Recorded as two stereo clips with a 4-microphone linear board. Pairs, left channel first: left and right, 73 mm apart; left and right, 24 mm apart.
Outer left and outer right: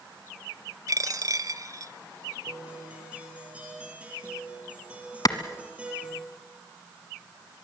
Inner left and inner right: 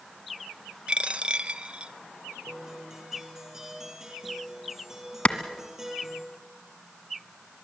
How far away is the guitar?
About 5 m.